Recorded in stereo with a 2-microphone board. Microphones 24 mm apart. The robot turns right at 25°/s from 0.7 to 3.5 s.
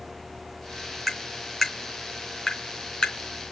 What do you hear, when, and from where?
1.1 s tapping: 5° right (ahead or behind), 4 m; by 3.5 s 50° left (ahead or behind), 4 m